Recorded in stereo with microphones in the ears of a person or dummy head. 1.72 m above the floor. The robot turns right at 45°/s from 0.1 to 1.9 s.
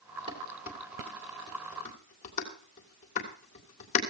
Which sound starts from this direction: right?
Dishes clattering, at 0.3 s.